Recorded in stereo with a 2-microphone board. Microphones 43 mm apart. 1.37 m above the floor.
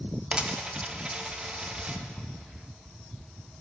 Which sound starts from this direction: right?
A dropped coin, at 0.3 s.